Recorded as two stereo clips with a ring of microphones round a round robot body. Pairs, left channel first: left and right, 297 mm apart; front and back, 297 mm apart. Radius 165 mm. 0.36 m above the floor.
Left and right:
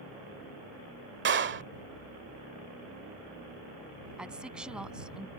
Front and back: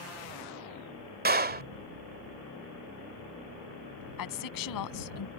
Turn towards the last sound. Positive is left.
turn(degrees=-5)